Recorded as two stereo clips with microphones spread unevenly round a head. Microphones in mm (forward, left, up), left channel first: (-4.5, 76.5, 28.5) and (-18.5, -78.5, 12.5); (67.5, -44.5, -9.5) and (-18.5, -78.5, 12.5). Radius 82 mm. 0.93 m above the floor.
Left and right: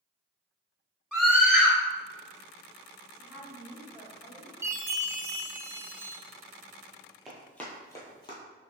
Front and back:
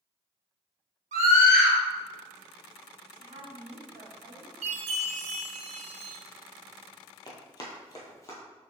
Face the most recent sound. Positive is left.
turn(degrees=90)